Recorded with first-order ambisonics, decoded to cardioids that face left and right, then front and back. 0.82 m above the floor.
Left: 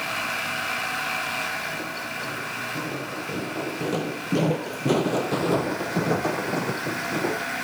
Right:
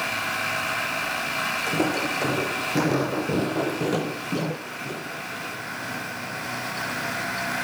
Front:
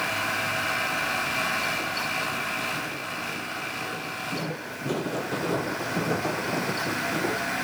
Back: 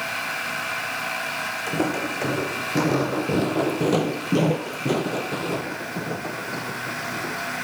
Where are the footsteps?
140° right; by 7.5 s 70° left.